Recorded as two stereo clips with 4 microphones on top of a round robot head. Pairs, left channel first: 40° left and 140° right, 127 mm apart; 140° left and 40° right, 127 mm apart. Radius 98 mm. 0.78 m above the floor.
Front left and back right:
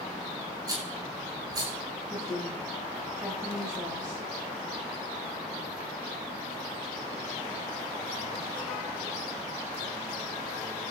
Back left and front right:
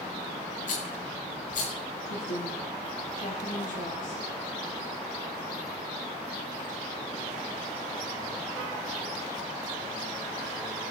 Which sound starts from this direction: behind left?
A woman speaking, at 2.1 s.